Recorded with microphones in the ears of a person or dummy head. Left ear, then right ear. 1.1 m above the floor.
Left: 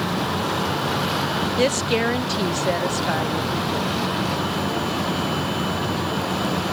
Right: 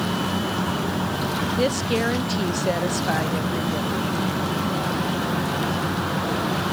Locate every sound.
1.6 s a woman speaking: 35° left (ahead or behind); by 4.0 s 20° right (ahead or behind)